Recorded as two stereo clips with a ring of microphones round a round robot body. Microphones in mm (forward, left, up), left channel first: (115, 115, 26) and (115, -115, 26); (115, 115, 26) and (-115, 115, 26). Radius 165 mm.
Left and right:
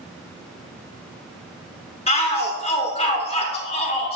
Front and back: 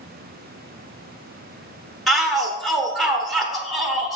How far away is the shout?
About 0.9 m.